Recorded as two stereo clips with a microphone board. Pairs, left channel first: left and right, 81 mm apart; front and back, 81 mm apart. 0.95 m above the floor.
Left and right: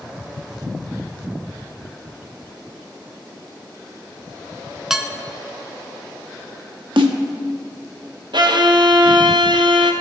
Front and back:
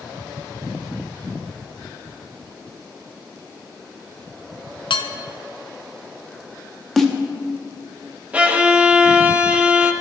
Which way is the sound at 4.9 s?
5° right.